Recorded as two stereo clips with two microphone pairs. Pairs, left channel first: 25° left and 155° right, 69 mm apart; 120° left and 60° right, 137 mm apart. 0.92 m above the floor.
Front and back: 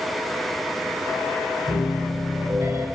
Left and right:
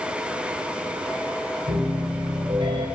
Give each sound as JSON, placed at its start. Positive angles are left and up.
{"t": 1.7, "sound": "a piano", "azimuth_deg": -115, "distance_m": 2.5}